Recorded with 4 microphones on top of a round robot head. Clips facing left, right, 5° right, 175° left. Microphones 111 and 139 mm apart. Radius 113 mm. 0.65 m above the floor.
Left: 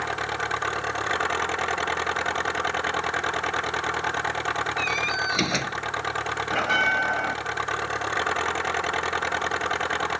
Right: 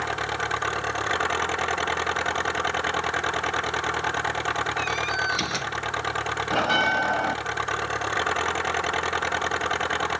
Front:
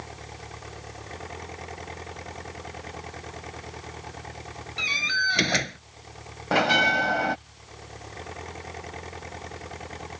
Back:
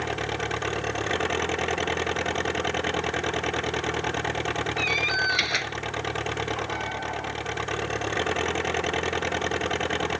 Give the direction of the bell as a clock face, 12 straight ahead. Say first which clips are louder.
Right 2 dB, front 7 dB; 12 o'clock.